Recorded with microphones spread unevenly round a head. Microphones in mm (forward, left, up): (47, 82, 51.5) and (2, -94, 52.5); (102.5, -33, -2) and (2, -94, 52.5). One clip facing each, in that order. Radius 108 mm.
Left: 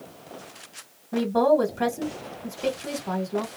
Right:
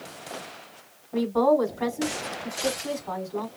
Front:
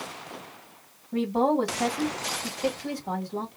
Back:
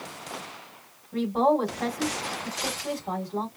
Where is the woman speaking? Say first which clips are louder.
Left 1 dB, back 1 dB; 95° left, 1.8 m.